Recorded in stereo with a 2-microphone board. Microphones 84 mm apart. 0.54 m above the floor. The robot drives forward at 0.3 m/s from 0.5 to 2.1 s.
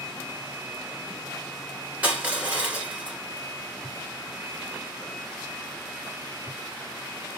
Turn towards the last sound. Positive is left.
turn(degrees=-15)  # may be behind; listen again after turning